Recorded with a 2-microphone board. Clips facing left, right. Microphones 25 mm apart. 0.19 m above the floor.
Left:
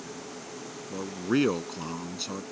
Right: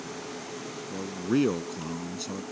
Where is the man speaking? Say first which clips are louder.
Even; 30° left (ahead or behind).